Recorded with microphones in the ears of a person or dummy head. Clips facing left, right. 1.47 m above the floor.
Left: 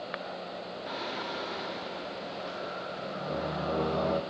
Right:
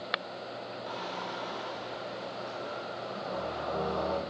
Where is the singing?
35° left (ahead or behind), 0.7 m.